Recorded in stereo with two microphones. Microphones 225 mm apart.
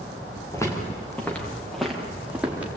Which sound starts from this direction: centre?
Footsteps, at 0.5 s.